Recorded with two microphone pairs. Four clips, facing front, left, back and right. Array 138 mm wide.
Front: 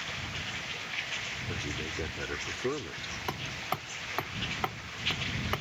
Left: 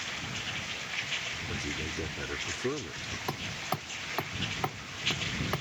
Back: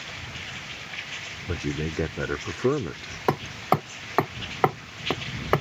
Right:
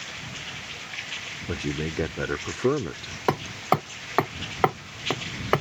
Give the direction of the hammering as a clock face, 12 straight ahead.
4 o'clock.